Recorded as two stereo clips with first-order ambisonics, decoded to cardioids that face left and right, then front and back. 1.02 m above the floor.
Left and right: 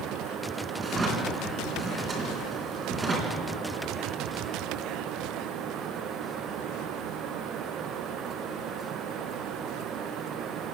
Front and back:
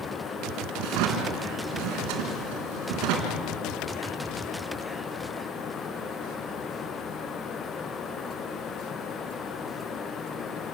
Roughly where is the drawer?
Behind.